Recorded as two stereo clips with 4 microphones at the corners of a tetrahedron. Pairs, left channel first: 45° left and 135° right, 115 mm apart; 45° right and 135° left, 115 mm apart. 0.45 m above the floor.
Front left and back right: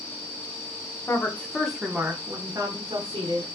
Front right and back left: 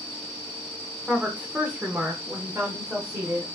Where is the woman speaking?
70° left, 0.9 m; by 3.5 s 155° right, 1.4 m.